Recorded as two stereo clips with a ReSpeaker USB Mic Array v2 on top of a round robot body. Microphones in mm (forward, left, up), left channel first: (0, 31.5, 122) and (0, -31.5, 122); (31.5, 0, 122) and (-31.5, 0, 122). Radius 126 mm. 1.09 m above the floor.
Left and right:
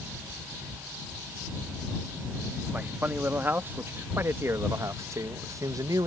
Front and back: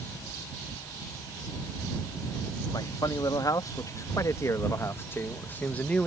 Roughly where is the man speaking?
Ahead right.